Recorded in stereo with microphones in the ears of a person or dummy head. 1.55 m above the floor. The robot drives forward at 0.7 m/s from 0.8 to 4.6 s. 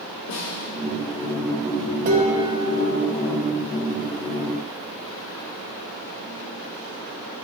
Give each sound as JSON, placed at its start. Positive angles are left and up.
{"t": 0.3, "sound": "a snare drum", "side_deg": 45, "distance_m": 1.1}
{"t": 2.0, "sound": "dishes clattering", "side_deg": -45, "distance_m": 0.7}